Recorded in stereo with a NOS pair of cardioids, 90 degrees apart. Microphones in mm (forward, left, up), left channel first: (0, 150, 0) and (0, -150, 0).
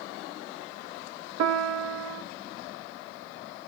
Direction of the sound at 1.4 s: 60° right.